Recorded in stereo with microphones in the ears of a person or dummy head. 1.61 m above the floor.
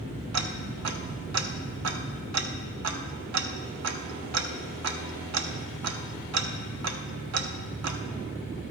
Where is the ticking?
85° right, 0.7 m.